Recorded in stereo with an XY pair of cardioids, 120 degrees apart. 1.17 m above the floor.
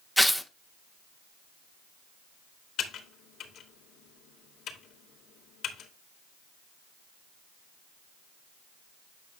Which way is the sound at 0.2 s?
Straight ahead.